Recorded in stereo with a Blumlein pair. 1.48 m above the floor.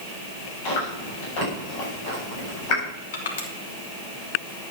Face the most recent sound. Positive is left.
turn(degrees=60)